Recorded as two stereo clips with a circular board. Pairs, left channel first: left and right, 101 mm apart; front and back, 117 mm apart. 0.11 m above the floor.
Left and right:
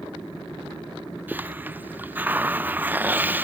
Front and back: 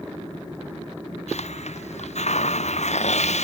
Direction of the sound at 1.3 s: 20° right.